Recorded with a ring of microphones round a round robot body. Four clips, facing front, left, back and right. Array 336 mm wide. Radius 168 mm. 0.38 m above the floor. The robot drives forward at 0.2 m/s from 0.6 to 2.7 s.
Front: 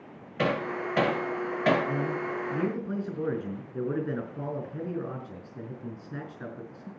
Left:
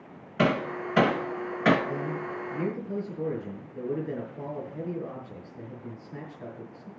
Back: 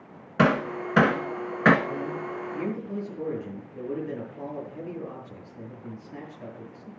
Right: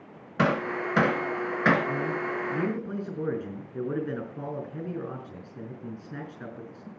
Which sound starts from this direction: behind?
Hammering, at 0.4 s.